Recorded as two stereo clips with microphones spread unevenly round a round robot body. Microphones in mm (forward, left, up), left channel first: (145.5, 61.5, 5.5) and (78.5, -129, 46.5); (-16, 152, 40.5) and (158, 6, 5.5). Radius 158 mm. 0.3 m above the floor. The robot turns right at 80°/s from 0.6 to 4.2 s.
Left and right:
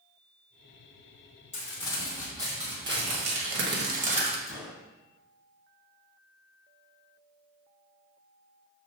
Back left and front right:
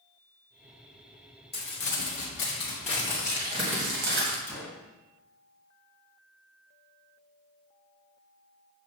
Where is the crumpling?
100° left, 1.8 m; by 4.4 s 45° right, 1.8 m.